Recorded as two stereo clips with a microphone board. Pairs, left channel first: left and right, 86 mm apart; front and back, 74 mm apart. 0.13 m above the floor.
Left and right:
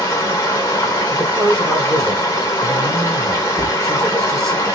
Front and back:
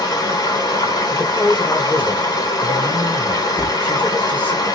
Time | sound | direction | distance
0.0 | running water | 30° left | 2.5 m
1.1 | a woman speaking | 60° right | 2.0 m
3.6 | a thud | 55° right | 1.4 m